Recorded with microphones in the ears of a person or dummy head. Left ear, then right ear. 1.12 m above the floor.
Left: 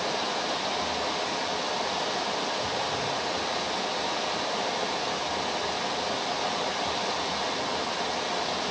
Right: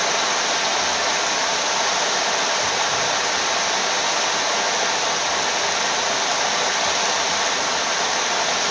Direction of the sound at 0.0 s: 55° right (ahead or behind).